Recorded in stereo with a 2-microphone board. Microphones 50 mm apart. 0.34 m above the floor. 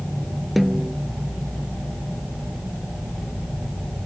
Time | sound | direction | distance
0.6 | a snare drum | centre (ahead or behind) | ?